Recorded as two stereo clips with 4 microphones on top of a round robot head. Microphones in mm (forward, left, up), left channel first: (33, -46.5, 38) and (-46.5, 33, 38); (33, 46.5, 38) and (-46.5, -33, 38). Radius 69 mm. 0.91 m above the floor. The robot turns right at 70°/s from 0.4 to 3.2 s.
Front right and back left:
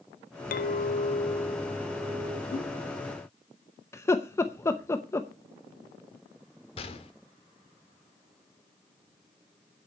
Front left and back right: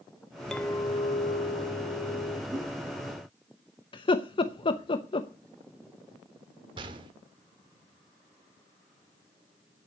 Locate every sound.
0.5 s a clink: 40° right, 0.5 m; by 2.4 s 90° left, 0.5 m
2.5 s a whoosh: 55° right, 5.5 m; by 2.7 s 40° right, 5.5 m
3.9 s laughter: 15° left, 0.8 m
6.8 s a gunshot: 85° right, 1.3 m